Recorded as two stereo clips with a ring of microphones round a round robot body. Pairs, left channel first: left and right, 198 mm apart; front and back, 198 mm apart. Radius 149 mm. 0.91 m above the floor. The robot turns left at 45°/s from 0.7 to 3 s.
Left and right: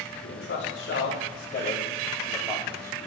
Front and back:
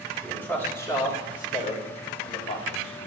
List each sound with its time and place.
0.2 s a man speaking: 80° left, 5.5 m; by 3.1 s 25° right, 5.5 m